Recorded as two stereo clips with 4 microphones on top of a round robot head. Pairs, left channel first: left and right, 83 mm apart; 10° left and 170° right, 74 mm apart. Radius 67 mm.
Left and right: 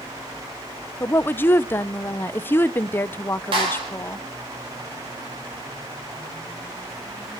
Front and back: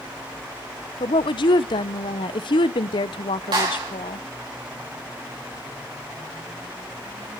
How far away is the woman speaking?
About 0.7 m.